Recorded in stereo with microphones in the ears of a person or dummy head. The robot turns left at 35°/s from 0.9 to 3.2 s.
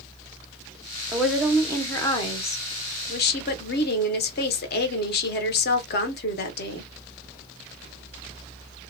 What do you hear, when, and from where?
1.1 s a woman speaking: 170° right, 0.9 m; by 6.9 s 115° left, 0.9 m